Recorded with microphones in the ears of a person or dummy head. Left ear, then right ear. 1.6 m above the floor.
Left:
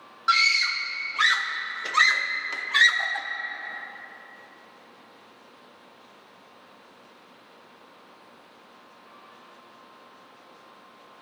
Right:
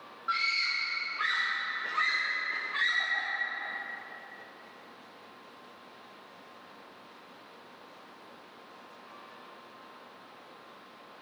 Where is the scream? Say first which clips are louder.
Left 8 dB; 80° left, 0.7 m.